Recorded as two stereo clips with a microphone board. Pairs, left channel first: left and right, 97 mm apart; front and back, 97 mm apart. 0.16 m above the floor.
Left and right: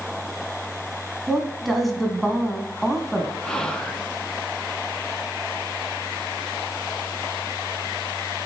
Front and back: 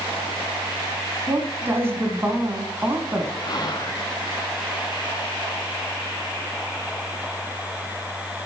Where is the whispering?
10° left, 1.7 m.